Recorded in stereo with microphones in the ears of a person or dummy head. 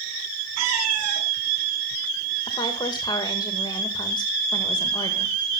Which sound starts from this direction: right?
A cat meowing, at 0.6 s.